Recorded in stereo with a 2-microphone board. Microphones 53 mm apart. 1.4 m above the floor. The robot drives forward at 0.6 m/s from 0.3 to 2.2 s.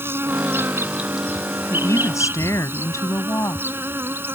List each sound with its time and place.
0.0 s an insect: 45° right (ahead or behind)
1.7 s a woman speaking: 70° left (ahead or behind)